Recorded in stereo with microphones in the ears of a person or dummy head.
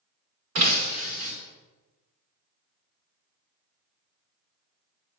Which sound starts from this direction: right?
Breaking glass, at 0.6 s.